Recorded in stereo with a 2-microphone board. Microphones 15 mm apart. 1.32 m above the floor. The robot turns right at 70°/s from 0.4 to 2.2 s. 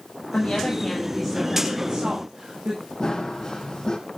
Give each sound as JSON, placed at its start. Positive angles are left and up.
{"t": 0.3, "sound": "a woman speaking", "azimuth_deg": 110, "distance_m": 7.0}
{"t": 3.0, "sound": "running footsteps", "side_deg": 35, "distance_m": 3.0}